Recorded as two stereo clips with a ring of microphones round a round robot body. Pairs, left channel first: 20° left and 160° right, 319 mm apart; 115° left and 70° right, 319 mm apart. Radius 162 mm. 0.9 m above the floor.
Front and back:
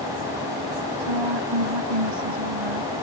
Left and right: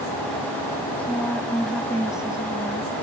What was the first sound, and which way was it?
A woman speaking, 160° right.